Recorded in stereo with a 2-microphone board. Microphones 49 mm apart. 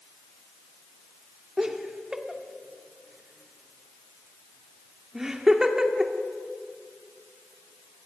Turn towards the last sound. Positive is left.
turn(degrees=-15)  # may be behind; listen again after turning